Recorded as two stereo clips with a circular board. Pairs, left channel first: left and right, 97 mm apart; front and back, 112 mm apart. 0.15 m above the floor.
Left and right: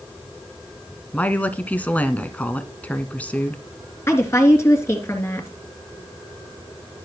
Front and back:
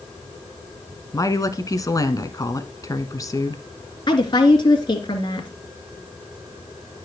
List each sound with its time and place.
1.1 s a woman speaking: 25° left, 1.2 m
4.1 s a woman speaking: 35° left, 2.5 m